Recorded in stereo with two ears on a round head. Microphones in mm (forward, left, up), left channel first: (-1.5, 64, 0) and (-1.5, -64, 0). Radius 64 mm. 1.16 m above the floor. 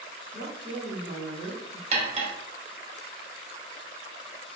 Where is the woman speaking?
45° right (ahead or behind), 1.8 m; by 1.8 s 85° right, 1.2 m.